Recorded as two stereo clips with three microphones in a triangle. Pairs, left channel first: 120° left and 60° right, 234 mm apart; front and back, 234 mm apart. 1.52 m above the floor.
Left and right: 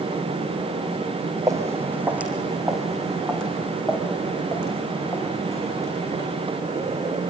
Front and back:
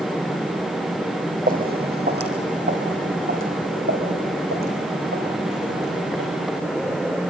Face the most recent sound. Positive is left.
turn(degrees=-165)